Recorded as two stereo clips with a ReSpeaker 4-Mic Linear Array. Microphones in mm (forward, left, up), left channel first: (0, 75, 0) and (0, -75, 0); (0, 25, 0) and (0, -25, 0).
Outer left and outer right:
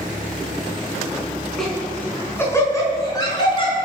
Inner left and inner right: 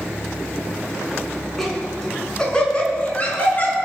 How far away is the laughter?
About 4 m.